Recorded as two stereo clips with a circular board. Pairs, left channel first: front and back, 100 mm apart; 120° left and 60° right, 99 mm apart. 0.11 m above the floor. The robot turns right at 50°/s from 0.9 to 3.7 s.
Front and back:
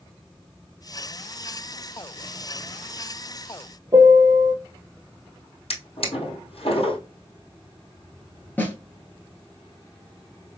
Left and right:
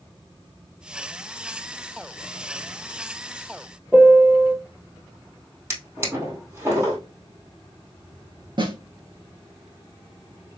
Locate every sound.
3.9 s a piano: 140° right, 1.0 m
5.7 s a drawer: 5° left, 2 m
8.6 s a snare drum: 65° right, 1.3 m